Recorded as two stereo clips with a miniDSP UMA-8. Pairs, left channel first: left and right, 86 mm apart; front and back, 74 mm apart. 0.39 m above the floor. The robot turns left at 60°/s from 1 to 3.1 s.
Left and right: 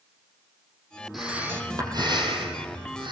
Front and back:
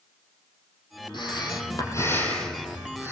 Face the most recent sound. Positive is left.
turn(degrees=-120)